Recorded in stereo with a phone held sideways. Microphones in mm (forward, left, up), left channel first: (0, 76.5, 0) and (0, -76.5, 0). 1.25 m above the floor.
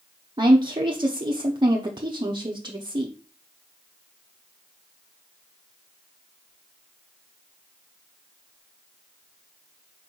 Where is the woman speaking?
30° right (ahead or behind), 0.6 m.